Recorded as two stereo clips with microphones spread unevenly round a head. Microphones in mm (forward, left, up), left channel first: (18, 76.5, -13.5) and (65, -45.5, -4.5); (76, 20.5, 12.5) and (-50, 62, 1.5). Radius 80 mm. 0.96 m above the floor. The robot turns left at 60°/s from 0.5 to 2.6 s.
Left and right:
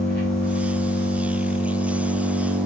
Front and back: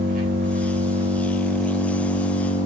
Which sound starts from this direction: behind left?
An engine running, at 0.0 s.